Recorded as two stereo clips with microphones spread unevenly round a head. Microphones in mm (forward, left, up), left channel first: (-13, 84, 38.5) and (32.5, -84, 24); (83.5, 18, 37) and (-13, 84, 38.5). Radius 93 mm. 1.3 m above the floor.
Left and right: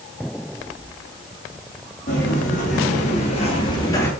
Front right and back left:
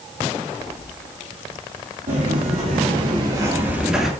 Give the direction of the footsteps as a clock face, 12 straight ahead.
7 o'clock.